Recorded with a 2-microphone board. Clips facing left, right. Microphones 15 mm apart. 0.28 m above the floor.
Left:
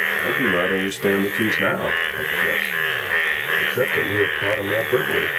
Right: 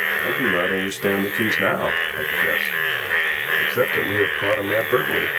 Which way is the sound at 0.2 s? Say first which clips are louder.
Left 1 dB; 20° left (ahead or behind).